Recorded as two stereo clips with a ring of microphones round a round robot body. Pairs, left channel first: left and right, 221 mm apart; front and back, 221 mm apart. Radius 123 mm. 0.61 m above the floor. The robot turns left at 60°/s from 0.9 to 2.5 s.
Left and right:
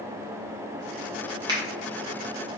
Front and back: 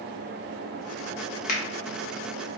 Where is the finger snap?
30° right, 0.8 m; by 1.6 s 35° right, 0.8 m.